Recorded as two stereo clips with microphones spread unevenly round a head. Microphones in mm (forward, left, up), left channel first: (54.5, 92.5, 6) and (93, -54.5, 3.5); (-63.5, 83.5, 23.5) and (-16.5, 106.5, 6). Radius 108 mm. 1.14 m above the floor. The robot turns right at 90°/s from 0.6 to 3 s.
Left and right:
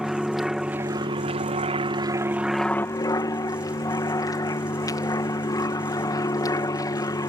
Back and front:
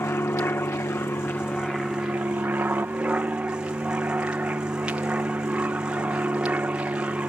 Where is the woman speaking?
No woman speaking in this recording.